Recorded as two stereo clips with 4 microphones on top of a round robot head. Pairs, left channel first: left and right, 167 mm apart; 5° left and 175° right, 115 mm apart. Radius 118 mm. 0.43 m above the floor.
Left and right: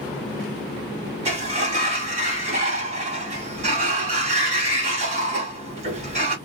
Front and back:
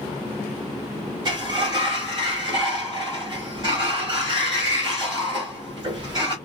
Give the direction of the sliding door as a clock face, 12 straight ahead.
4 o'clock.